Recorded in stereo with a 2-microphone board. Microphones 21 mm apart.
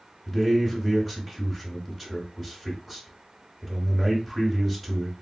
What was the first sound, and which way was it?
A man speaking, 10° right (ahead or behind).